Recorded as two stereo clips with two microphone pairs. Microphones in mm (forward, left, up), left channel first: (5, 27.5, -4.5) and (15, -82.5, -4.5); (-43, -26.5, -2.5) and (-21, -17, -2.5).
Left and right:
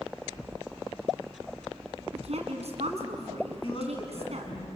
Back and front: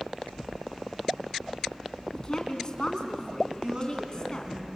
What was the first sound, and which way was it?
A woman speaking, 100° right.